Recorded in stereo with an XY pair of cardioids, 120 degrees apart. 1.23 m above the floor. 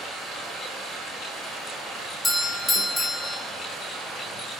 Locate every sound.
0.0 s running water: 70° right, 3.5 m
2.2 s a doorbell: 5° left, 1.4 m